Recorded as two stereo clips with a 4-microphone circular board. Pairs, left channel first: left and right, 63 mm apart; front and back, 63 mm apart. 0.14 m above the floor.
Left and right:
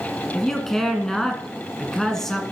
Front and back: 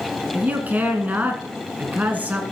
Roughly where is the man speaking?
Behind.